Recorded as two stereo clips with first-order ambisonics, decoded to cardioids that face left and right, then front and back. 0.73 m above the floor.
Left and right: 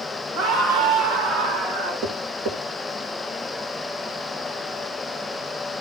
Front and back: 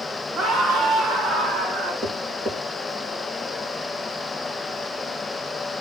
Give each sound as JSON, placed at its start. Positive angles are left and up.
{"t": 0.3, "sound": "a scream", "azimuth_deg": -125, "distance_m": 7.5}
{"t": 2.0, "sound": "tapping", "azimuth_deg": -115, "distance_m": 5.0}